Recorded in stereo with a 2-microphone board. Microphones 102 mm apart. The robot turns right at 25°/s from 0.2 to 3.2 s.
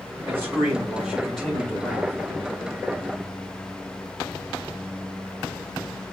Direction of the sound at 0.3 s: 25° right.